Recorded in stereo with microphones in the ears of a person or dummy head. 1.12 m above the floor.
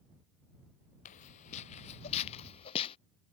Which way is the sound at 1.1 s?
40° left (ahead or behind).